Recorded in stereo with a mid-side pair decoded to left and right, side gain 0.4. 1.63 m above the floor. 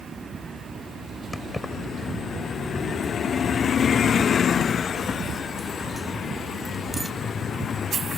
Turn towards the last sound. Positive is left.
turn(degrees=-25)